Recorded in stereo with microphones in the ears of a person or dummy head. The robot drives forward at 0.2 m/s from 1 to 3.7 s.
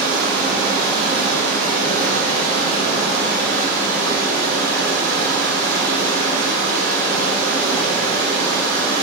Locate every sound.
0.0 s running water: 45° right (ahead or behind), 1.8 m; by 9.0 s 35° right (ahead or behind), 2 m